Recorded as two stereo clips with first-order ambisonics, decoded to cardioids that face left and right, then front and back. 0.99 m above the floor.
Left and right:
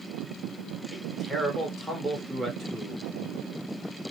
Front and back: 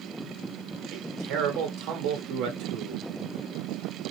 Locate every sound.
0.9 s a man speaking: 170° right, 1.9 m